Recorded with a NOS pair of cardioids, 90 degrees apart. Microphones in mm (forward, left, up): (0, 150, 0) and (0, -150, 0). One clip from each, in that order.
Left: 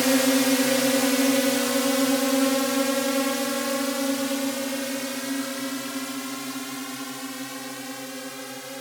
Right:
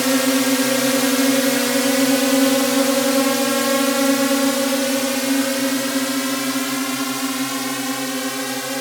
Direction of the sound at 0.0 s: 20° right.